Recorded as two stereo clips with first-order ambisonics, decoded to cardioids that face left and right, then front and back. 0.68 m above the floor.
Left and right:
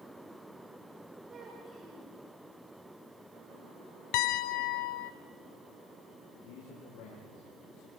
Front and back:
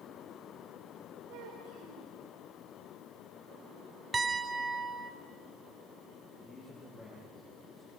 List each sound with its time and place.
1.3 s a child speaking: 160° right, 3 m
4.1 s a piano: 100° left, 0.9 m
6.3 s a man speaking: 75° left, 9.5 m